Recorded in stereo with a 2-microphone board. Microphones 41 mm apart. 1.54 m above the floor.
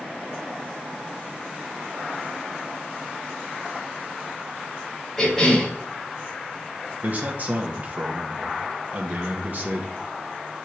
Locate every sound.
5.2 s a cough: centre (ahead or behind), 4.5 m
7.0 s a man speaking: 45° right (ahead or behind), 1.5 m